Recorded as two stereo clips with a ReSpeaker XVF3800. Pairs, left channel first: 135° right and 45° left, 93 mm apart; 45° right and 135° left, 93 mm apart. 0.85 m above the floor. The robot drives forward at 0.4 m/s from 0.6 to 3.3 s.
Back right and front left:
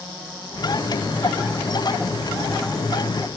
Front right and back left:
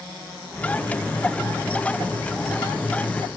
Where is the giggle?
I don't hear a giggle.